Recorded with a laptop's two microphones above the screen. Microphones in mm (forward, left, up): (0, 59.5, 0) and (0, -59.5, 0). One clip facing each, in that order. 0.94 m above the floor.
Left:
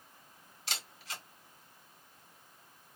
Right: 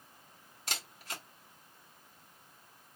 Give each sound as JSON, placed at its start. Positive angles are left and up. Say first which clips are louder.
{"t": 0.7, "sound": "a camera shutter", "louder": "right 1 dB", "side_deg": -45, "distance_m": 2.0}